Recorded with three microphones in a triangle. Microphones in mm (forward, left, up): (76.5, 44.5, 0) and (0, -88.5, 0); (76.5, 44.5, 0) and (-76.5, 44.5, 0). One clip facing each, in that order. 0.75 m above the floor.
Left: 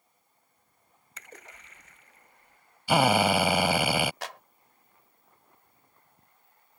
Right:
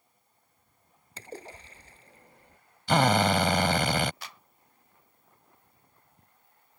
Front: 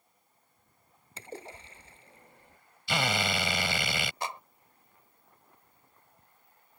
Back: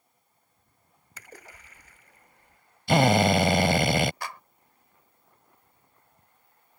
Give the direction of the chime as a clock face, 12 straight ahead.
No chime in this recording.